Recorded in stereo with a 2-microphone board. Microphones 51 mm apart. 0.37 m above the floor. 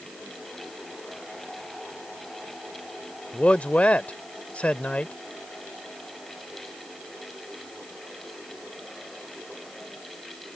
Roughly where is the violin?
I don't hear a violin.